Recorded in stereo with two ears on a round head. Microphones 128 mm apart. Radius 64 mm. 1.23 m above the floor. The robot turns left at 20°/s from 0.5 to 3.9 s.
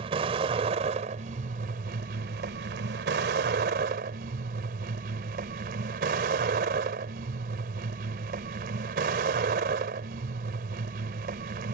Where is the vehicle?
40° right; by 11.8 s 110° right.